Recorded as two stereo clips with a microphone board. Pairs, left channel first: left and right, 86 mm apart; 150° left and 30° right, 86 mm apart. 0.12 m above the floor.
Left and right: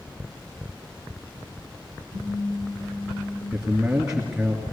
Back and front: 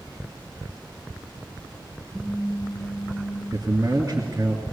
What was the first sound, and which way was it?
A phone buzzing, 60° left.